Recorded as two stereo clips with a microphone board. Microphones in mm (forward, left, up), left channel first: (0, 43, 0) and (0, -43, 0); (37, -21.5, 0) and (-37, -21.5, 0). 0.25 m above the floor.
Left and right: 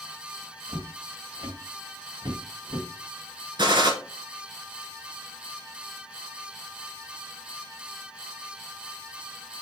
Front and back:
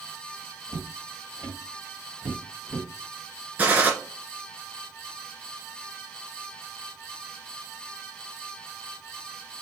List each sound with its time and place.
0.7 s footsteps: 150° right, 2.5 m; by 2.9 s 110° right, 3.5 m
3.6 s a gunshot: 115° right, 2 m